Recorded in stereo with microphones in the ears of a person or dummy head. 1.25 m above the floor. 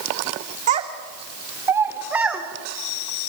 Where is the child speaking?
40° right (ahead or behind), 2 m; by 2.4 s 5° right (ahead or behind), 2.5 m.